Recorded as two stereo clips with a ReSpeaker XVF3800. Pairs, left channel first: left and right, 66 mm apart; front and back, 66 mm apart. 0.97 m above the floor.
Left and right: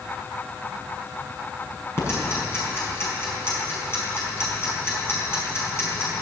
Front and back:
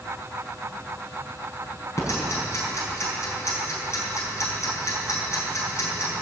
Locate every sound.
2.0 s ticking: 45° left, 6 m